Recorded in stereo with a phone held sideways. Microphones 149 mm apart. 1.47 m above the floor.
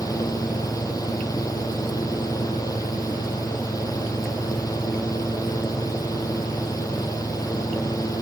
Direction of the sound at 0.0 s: 25° left (ahead or behind).